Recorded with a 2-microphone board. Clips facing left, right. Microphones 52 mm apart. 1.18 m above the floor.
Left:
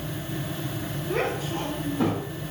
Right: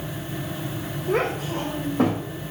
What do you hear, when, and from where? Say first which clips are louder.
1.1 s a child speaking: right 4 dB; 75° right (ahead or behind), 1.9 m; by 2.2 s 70° right (ahead or behind), 2.5 m